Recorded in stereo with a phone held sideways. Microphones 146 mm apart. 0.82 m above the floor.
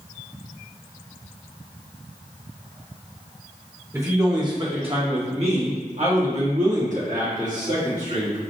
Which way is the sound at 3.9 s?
20° right (ahead or behind).